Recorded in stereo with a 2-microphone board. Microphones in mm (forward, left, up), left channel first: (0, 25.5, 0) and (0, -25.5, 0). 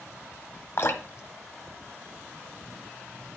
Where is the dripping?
50° left (ahead or behind), 1.0 m.